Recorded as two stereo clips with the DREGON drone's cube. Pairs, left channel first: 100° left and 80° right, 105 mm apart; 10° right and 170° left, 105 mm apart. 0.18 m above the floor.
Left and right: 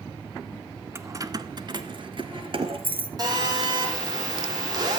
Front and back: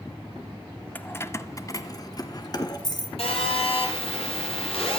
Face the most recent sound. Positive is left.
turn(degrees=-30)